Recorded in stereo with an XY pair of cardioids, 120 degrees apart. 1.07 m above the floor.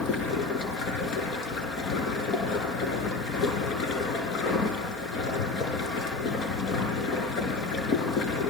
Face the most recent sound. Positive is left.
turn(degrees=65)